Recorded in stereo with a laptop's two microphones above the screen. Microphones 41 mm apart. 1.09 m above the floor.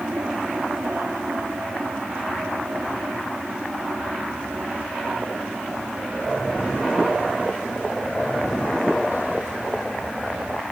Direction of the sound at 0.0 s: 50° right (ahead or behind).